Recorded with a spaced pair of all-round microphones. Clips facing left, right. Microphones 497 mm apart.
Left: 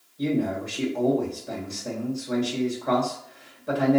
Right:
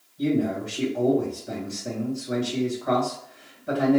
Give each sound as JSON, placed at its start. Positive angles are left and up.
{"t": 0.2, "sound": "a man speaking", "side_deg": -35, "distance_m": 1.8}